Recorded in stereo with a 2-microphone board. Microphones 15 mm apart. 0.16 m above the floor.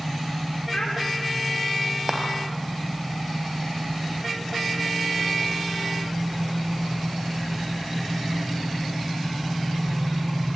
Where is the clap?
35° right (ahead or behind), 2.5 m.